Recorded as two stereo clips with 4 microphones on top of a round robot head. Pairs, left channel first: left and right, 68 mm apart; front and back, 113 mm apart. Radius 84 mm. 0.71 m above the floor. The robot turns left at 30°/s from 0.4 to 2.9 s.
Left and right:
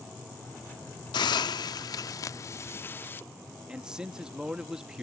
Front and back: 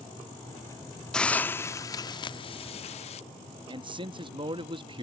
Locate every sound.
1.1 s a hiss: 85° left; by 3.2 s 30° left
3.7 s a man speaking: 165° right